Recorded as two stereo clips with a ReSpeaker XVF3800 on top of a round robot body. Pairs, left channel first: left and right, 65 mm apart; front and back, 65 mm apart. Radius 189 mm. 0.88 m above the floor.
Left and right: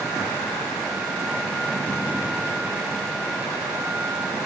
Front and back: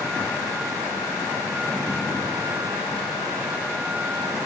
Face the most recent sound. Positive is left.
No sound to turn to.